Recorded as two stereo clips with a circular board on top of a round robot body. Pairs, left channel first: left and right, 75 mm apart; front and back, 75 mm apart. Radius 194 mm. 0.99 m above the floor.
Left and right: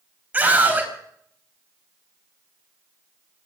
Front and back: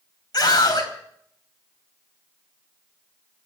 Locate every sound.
0.3 s a scream: 25° right, 5 m